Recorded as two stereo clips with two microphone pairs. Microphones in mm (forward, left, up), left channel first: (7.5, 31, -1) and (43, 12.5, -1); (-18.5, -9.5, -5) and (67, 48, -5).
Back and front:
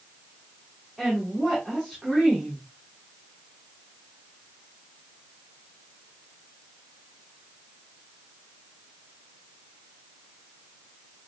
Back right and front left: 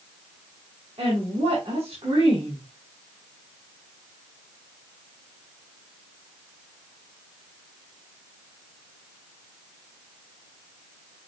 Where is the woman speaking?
55° left, 8 m.